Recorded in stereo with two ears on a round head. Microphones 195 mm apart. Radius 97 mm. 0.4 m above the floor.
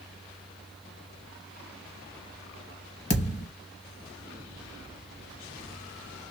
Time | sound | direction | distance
3.1 | a thud | 35° left (ahead or behind) | 0.8 m